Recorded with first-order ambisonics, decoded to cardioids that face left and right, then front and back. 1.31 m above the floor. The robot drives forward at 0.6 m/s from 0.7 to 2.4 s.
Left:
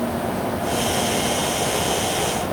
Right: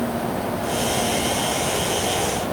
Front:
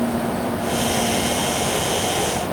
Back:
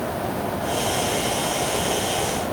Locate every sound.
Only background noise.